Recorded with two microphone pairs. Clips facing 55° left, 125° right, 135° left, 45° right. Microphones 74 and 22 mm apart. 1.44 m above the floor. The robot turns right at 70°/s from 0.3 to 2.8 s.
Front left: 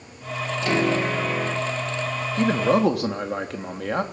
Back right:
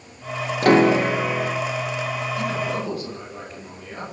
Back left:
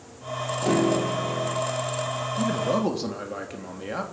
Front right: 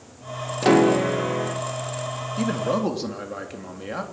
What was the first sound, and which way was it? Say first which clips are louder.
A piano: back right 7 dB, front right 6 dB; 95° right.